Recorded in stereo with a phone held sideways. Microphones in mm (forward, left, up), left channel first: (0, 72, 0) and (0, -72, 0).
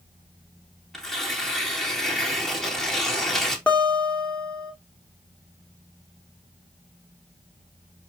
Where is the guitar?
10° left (ahead or behind), 3 m.